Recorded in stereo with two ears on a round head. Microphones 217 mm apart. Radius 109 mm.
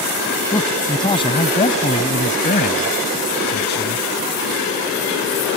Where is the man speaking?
15° left (ahead or behind); by 4.1 s 50° left (ahead or behind).